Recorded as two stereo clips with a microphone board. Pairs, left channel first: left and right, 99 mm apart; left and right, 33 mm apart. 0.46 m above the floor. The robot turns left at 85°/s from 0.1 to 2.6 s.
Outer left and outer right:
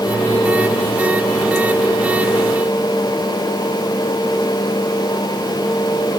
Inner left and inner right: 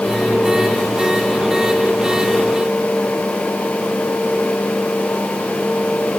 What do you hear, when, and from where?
Only background noise.